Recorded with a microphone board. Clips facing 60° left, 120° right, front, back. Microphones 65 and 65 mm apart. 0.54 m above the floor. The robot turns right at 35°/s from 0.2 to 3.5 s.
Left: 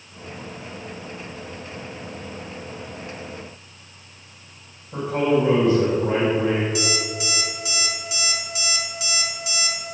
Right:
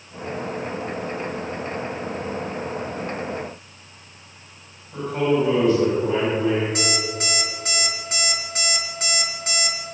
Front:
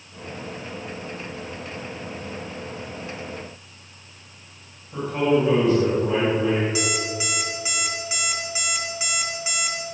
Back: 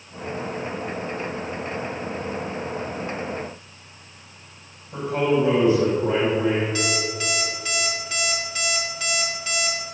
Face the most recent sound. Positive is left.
turn(degrees=-75)